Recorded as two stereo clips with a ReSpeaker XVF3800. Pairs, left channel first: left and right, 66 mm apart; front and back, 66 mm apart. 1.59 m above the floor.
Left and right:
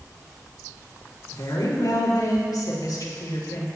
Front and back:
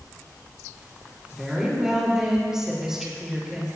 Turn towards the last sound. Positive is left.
turn(degrees=100)